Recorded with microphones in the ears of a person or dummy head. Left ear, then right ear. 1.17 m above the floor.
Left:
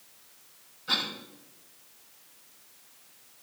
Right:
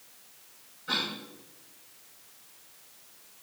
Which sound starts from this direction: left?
A cough, at 0.9 s.